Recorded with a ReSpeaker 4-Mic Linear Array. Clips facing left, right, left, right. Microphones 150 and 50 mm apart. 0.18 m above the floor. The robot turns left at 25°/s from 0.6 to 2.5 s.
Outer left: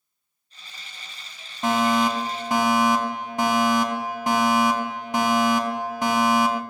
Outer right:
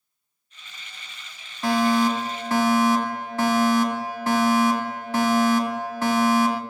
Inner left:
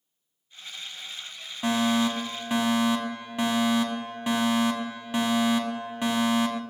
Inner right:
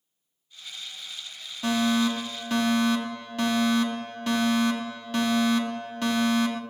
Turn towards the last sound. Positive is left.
turn(degrees=15)  # may be behind; listen again after turning